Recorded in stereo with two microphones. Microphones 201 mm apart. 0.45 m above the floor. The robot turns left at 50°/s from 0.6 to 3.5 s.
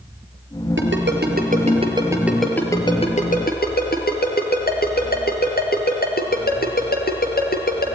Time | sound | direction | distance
0.8 | a ringtone | 80° right | 3.5 m